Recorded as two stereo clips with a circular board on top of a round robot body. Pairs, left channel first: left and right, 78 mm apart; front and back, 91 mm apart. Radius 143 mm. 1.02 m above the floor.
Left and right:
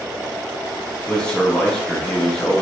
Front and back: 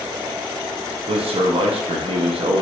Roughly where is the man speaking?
Behind.